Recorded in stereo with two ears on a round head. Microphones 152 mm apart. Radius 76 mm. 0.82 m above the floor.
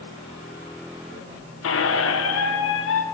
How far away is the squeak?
About 0.7 m.